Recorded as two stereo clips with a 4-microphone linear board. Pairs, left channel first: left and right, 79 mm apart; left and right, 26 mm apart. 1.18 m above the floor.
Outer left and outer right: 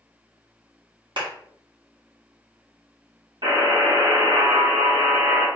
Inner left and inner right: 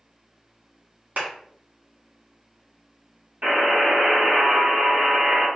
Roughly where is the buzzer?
Right.